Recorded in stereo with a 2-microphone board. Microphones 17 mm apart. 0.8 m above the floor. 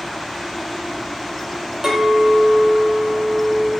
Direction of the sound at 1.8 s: 30° right (ahead or behind).